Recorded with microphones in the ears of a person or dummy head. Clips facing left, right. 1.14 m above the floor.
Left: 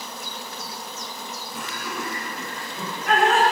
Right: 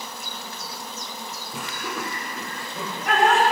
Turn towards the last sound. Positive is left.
turn(degrees=-50)  # may be behind; listen again after turning